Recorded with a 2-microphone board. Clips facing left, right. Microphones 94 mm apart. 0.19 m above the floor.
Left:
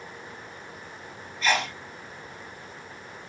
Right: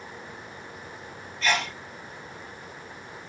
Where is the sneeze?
10° left (ahead or behind), 1.8 m.